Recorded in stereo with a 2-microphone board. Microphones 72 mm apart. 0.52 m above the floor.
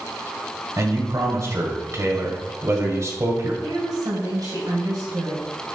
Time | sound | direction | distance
0.8 | a man speaking | 45° right (ahead or behind) | 1.9 m
3.6 | a woman speaking | 65° right (ahead or behind) | 3 m